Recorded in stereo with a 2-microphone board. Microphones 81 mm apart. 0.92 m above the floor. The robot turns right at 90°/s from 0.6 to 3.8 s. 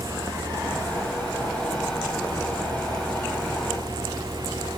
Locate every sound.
Only background noise.